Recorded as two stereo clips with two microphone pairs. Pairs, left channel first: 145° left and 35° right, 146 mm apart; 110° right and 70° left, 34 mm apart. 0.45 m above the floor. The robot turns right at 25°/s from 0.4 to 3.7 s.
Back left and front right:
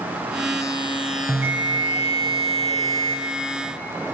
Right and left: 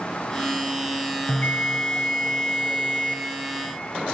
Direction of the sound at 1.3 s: 115° right.